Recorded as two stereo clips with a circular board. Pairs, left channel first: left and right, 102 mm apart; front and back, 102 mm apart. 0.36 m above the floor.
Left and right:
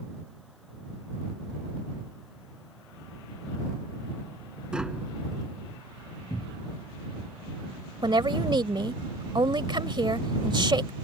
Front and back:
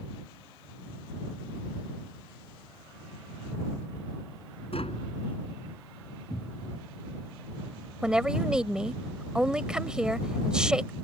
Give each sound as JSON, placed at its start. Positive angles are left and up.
{"t": 4.7, "sound": "tapping", "azimuth_deg": -10}
{"t": 6.3, "sound": "a cupboard door", "azimuth_deg": 40}
{"t": 8.0, "sound": "a woman speaking", "azimuth_deg": -100}